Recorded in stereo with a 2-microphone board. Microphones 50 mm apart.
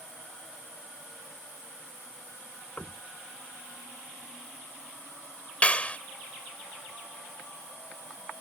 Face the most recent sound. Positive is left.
turn(degrees=25)  # may be behind; listen again after turning